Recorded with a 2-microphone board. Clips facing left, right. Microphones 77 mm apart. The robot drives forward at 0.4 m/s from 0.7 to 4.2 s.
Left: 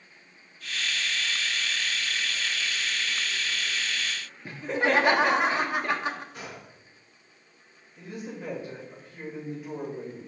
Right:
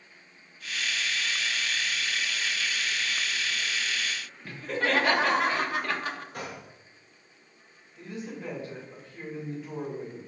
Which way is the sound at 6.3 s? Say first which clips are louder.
Right 3 dB; 55° right (ahead or behind).